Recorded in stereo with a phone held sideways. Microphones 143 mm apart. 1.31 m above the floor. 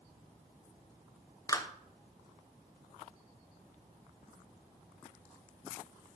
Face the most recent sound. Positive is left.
turn(degrees=25)  # may be behind; listen again after turning